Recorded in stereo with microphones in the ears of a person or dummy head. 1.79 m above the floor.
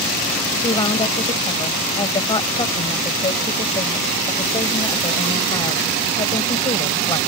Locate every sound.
0.6 s a woman speaking: 25° left (ahead or behind)